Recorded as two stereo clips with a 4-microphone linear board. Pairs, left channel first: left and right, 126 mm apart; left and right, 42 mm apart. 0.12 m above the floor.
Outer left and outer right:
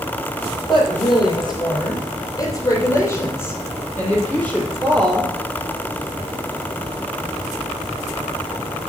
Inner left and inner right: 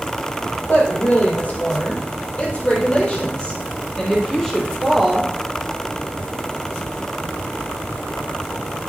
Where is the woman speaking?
45° left (ahead or behind), 3.5 m; by 5.3 s centre (ahead or behind), 3 m.